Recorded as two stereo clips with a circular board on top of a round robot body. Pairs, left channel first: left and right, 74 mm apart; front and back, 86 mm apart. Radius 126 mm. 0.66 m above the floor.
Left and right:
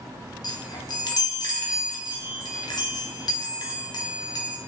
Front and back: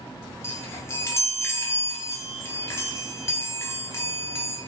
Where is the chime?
60° left, 0.7 m.